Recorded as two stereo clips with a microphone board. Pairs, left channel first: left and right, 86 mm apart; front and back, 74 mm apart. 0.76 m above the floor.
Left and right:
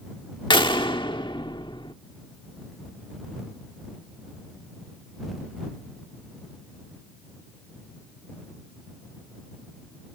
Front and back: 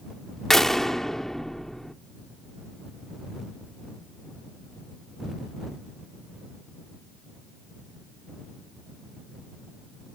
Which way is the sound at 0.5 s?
85° left.